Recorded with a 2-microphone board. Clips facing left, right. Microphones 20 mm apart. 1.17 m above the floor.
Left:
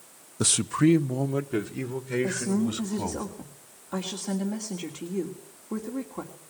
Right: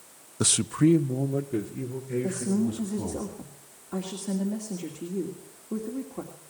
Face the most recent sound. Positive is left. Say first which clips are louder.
# even
turn(degrees=40)  # may be behind; listen again after turning